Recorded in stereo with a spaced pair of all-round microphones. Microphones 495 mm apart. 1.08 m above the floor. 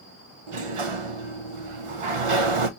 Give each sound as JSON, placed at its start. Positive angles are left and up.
{"t": 0.5, "sound": "a sliding door", "side_deg": -80, "distance_m": 0.6}